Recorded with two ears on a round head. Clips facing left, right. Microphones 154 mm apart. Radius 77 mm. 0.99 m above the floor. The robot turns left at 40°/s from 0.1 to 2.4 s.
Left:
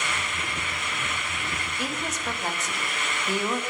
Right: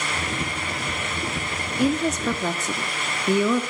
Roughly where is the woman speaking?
Right.